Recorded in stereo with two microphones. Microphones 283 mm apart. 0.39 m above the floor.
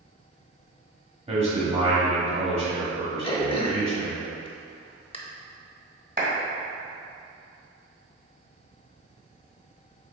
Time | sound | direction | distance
1.3 | a man speaking | 20° right (ahead or behind) | 1.7 m
3.2 | throat clearing | 20° left (ahead or behind) | 0.7 m
6.2 | a clap | 30° right (ahead or behind) | 1.7 m